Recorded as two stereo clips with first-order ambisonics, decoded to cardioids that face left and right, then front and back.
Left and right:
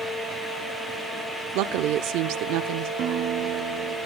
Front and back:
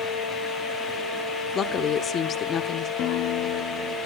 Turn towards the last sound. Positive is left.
turn(degrees=-45)